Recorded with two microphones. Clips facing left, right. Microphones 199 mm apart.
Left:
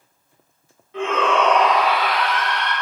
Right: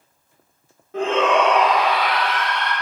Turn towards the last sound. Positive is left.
turn(degrees=15)  # may be behind; listen again after turning